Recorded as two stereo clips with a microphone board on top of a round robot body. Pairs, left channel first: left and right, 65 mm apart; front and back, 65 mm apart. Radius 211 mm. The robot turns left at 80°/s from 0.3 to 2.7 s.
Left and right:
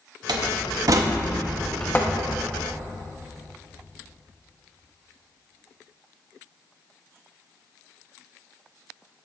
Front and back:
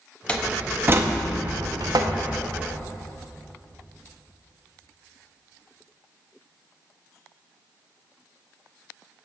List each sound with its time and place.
0.3 s a door slam: 75° right, 0.7 m; by 2.2 s 130° left, 0.7 m